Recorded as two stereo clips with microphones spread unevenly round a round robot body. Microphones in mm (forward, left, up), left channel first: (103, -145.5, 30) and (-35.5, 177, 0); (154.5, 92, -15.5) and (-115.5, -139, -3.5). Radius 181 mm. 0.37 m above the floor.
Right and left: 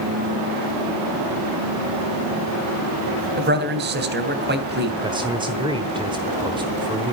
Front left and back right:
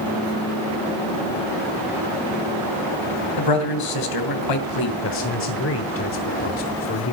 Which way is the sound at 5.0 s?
50° left.